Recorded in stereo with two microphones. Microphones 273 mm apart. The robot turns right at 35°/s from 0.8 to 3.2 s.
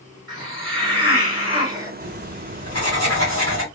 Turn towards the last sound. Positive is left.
turn(degrees=110)